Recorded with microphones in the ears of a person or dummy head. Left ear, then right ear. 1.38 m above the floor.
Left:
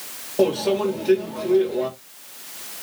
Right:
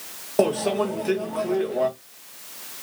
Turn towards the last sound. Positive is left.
turn(degrees=-40)  # may be behind; listen again after turning